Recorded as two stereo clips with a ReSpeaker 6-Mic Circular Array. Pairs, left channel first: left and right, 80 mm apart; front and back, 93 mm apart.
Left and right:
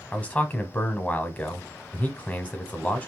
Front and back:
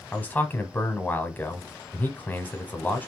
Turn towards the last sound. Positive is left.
turn(degrees=45)